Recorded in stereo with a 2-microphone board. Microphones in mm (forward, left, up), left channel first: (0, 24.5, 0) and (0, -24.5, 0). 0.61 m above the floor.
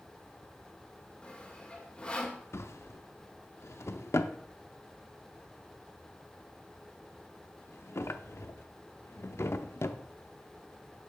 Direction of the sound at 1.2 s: 20° left (ahead or behind).